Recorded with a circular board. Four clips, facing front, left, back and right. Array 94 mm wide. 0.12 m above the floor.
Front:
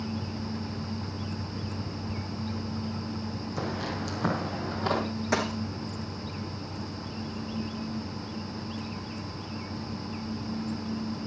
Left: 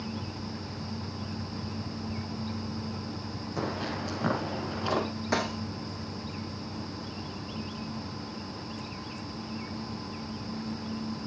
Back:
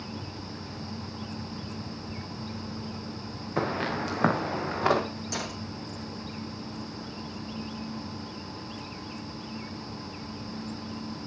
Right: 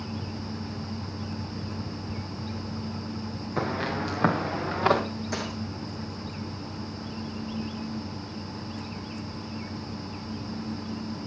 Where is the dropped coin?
35° left, 3 m.